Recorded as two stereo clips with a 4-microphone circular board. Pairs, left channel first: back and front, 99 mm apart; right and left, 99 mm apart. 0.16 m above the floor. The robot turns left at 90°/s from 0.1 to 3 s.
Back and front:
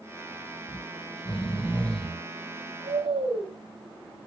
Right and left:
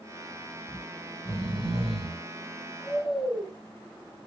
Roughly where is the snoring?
Behind right.